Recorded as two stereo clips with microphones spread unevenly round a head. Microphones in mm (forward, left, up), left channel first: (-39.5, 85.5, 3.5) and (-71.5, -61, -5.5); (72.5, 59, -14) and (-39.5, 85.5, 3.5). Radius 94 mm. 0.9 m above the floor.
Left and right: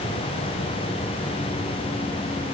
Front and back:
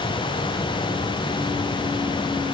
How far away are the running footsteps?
I don't hear running footsteps.